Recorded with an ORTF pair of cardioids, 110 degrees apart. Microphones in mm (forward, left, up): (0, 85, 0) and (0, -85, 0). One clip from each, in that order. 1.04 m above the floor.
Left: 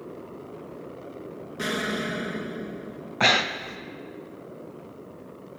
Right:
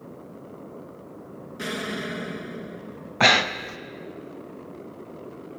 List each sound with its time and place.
1.6 s an explosion: 10° left, 0.9 m
3.2 s breathing: 15° right, 0.5 m